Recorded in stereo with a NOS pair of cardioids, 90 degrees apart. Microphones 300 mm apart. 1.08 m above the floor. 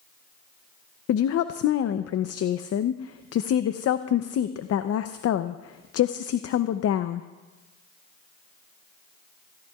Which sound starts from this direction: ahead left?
A woman speaking, at 1.1 s.